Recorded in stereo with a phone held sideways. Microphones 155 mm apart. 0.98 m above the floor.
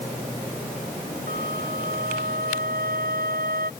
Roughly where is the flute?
Right.